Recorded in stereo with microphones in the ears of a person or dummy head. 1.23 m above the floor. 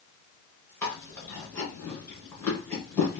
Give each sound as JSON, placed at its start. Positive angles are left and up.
{"t": 0.8, "sound": "chewing", "side_deg": 15, "distance_m": 1.8}